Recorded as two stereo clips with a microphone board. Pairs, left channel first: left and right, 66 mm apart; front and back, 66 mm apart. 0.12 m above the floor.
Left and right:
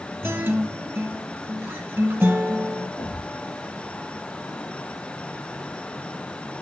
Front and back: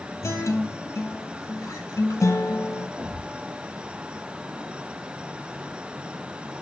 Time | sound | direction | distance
0.2 | a guitar | 40° right | 1.2 m
3.0 | a thud | 125° left | 3.5 m